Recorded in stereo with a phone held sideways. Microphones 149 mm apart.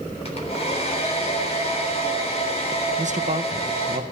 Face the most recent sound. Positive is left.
turn(degrees=-55)  # may be behind; listen again after turning